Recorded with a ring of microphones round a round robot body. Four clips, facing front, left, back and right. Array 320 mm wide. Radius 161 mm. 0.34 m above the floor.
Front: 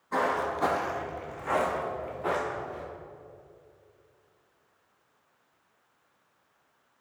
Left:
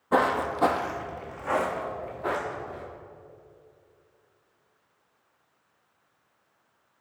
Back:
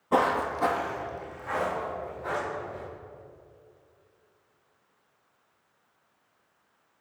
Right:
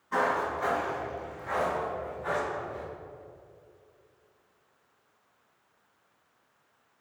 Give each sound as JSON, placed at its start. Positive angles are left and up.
{"t": 0.1, "sound": "footsteps", "azimuth_deg": 130, "distance_m": 0.7}